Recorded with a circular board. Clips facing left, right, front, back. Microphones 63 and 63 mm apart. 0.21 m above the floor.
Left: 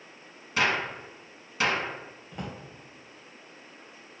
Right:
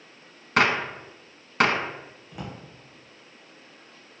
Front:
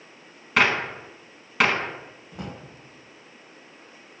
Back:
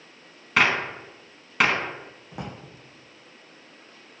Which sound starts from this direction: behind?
A drawer, at 2.3 s.